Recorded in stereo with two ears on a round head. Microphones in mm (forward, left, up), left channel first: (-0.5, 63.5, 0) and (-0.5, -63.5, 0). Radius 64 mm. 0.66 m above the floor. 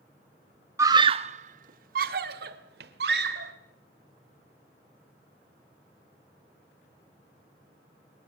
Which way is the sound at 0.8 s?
15° right (ahead or behind).